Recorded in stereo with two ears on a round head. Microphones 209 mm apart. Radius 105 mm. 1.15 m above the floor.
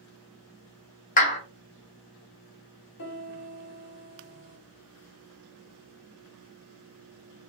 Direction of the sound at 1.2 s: 35° left (ahead or behind).